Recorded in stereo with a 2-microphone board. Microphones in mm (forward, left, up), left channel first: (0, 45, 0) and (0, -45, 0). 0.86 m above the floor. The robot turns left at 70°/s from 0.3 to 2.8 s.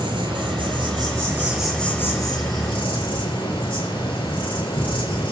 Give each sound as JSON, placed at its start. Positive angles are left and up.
{"t": 0.0, "sound": "an insect", "azimuth_deg": -80, "distance_m": 4.5}